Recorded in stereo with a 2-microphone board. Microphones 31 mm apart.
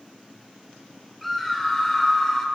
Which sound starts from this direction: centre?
A scream, at 1.2 s.